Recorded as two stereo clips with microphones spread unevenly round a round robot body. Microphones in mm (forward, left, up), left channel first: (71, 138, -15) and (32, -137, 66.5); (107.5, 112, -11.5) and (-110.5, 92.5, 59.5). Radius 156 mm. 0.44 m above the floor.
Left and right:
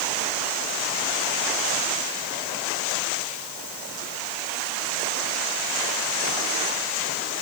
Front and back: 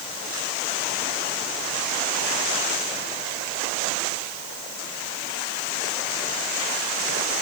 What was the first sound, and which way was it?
Only background noise.